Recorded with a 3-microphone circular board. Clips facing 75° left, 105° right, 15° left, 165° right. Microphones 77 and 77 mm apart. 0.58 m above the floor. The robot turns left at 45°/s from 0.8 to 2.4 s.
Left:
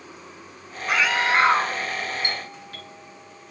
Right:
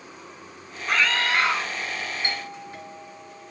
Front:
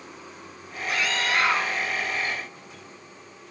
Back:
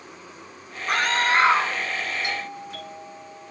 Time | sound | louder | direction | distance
0.9 | a scream | left 2 dB, back 5 dB | 160° left | ?
2.2 | a doorbell | even, back 3 dB | 170° right | ?